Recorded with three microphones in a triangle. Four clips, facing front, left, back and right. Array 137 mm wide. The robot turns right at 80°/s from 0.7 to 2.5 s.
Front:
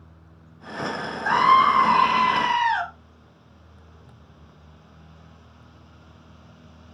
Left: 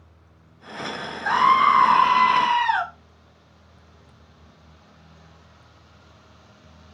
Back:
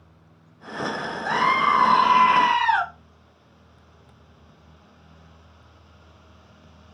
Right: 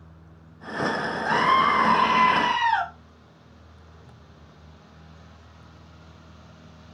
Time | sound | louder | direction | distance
1.2 | a scream | left 4 dB, front 4 dB | 50° left | 2.0 m